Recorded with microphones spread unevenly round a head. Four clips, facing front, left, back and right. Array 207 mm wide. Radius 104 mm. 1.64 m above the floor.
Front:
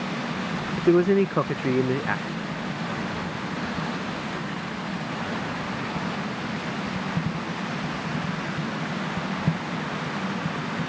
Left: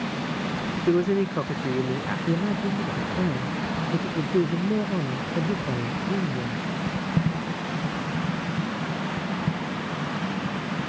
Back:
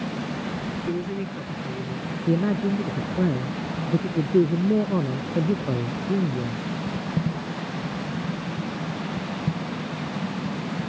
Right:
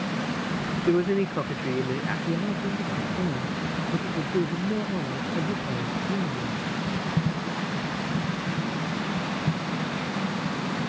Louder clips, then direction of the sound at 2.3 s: Left 4 dB, back 9 dB; 170° left.